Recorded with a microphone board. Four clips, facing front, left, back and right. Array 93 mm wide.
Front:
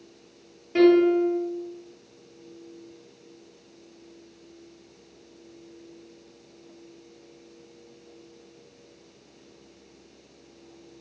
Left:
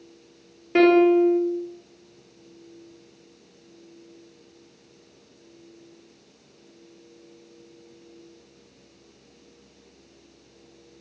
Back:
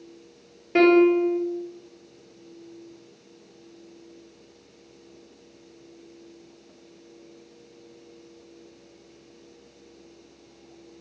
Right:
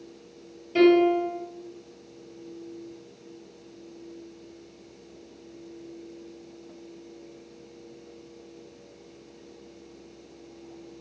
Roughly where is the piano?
Behind left.